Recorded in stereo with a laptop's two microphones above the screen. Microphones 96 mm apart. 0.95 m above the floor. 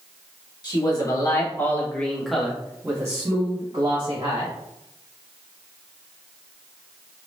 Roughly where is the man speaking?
Left.